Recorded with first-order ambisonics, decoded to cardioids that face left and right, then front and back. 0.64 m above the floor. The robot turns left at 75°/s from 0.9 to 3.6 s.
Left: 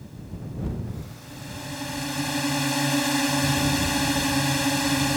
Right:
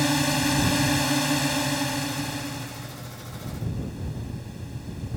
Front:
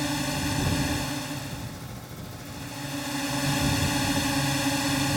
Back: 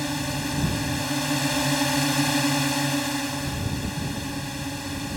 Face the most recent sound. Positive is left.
turn(degrees=70)